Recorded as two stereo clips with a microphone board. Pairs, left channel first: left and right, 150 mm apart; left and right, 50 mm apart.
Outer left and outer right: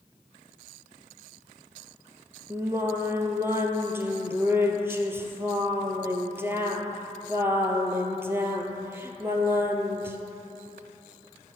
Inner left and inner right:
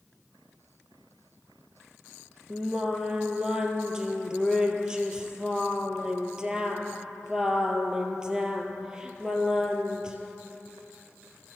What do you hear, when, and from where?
2.5 s singing: 15° right (ahead or behind), 1.4 m